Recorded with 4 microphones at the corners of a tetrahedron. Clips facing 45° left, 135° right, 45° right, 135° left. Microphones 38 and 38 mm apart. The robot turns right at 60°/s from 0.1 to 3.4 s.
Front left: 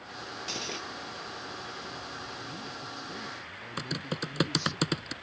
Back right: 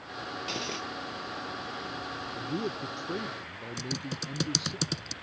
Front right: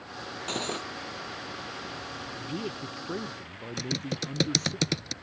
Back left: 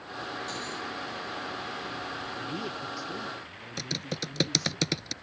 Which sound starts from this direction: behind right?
A man speaking, at 2.4 s.